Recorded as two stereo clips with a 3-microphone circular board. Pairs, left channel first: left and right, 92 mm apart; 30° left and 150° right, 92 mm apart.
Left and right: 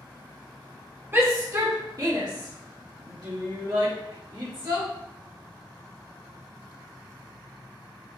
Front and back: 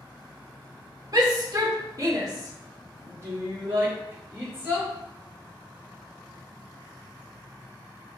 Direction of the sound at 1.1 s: 140° right.